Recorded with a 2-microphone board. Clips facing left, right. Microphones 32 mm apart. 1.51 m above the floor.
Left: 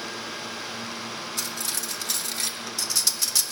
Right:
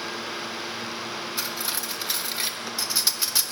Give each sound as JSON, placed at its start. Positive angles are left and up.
{"t": 1.4, "sound": "cutlery clinking", "side_deg": -20, "distance_m": 0.6}